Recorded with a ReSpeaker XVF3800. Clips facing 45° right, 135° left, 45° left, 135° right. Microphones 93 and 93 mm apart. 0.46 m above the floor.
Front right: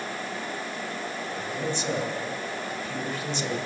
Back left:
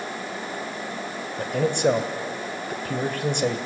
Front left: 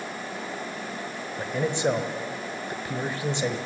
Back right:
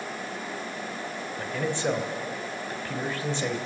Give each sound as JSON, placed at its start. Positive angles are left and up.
{"t": 1.4, "sound": "a man speaking", "azimuth_deg": 115, "distance_m": 2.0}